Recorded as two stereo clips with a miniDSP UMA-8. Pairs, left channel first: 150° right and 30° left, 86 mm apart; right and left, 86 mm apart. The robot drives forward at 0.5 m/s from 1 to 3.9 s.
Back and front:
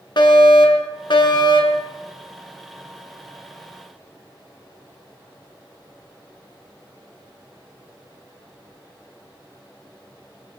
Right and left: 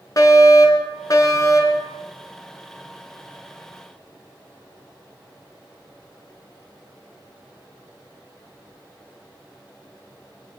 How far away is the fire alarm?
About 4.5 m.